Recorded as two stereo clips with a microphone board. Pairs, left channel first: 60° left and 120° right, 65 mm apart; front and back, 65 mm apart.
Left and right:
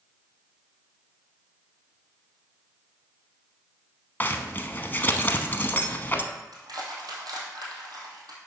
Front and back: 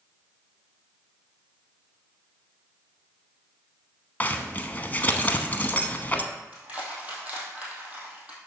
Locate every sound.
4.2 s a zipper: 35° left, 0.8 m
6.5 s crushing: 110° right, 2.5 m